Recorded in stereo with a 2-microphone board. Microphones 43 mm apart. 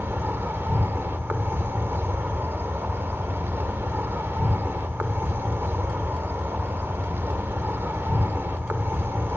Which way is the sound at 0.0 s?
65° right (ahead or behind).